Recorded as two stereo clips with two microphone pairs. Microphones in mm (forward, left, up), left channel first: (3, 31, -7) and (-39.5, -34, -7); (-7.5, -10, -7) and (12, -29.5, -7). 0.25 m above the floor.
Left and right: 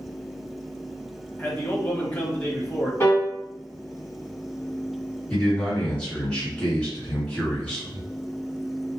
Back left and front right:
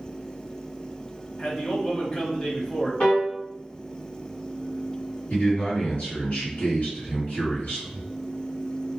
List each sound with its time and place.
1.4 s a man speaking: 105° left, 1.0 m
3.0 s a piano: 110° left, 1.8 m
5.3 s a man speaking: 125° left, 1.4 m